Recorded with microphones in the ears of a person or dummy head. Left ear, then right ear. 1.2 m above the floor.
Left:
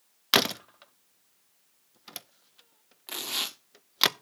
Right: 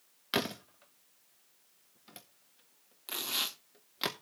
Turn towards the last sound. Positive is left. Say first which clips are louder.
# left 2 dB
turn(degrees=5)  # may be behind; listen again after turning